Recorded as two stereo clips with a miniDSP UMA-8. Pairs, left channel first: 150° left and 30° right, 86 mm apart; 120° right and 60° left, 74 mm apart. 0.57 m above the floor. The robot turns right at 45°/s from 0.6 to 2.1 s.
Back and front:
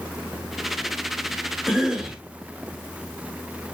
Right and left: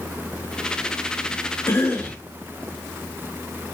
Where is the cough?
115° right, 1.2 m; by 2.2 s 95° right, 1.2 m.